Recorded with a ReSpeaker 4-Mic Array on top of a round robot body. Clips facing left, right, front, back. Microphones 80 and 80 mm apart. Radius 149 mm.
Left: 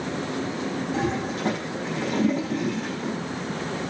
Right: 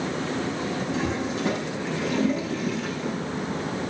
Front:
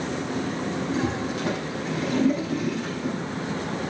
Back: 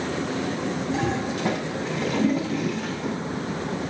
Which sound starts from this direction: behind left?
A toilet flushing, at 0.9 s.